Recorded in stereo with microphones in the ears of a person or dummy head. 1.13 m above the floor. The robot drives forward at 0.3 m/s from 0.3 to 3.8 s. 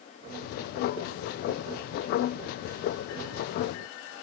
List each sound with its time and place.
Only background noise.